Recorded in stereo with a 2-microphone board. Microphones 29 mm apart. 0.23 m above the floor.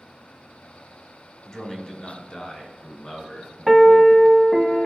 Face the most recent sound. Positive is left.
turn(degrees=-5)  # may be behind; listen again after turning